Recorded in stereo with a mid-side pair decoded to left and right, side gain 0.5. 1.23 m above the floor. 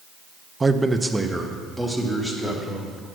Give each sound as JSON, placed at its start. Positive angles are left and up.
{"t": 0.6, "sound": "a man speaking", "azimuth_deg": -25, "distance_m": 0.6}